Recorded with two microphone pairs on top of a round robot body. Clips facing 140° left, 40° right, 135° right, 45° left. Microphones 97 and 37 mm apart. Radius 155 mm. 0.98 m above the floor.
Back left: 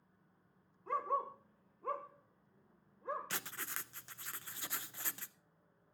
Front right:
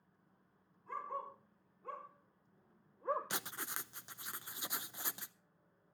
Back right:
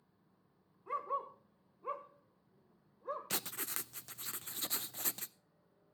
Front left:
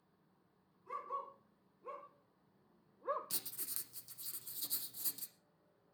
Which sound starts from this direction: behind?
A dog barking, at 0.9 s.